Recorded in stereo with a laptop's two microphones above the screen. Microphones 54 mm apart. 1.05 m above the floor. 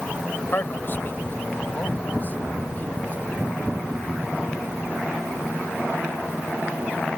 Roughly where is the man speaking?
Left.